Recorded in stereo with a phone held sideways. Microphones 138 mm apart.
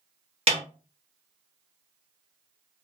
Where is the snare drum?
50° right (ahead or behind), 1.0 m.